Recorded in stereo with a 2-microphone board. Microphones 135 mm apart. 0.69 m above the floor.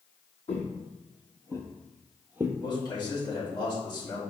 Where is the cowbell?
No cowbell in this recording.